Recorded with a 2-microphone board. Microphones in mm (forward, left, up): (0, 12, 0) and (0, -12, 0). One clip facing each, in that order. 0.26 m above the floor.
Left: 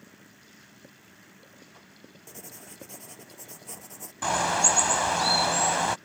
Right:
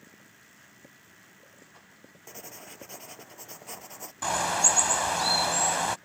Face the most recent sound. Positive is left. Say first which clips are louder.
# left 2 dB
turn(degrees=10)  # may be behind; listen again after turning